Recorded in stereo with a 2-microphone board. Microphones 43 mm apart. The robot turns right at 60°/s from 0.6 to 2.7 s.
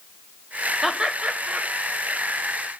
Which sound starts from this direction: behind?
Laughter, at 0.8 s.